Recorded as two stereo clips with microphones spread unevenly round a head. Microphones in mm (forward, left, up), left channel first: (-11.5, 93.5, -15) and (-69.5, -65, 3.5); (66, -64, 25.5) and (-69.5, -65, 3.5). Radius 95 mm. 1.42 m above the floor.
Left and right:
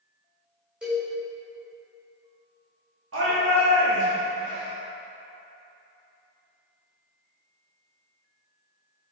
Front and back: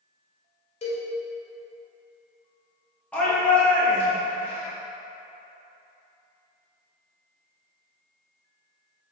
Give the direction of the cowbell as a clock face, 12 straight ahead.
1 o'clock.